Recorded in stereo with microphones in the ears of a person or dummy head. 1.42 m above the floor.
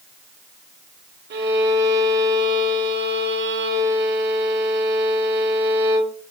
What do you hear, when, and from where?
1.3 s a violin: 50° right (ahead or behind), 2.5 m